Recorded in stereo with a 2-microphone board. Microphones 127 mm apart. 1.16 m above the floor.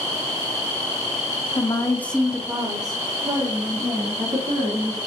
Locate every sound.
1.6 s a woman speaking: 35° left (ahead or behind), 0.6 m; by 5.0 s 55° right (ahead or behind), 1.8 m